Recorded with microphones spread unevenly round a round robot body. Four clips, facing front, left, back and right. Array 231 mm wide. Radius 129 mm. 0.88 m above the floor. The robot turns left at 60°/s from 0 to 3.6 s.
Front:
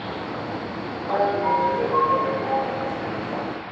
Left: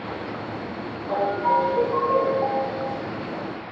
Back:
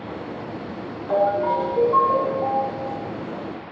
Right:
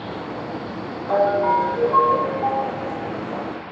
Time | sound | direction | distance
1.1 | a ringtone | 140° right | 0.7 m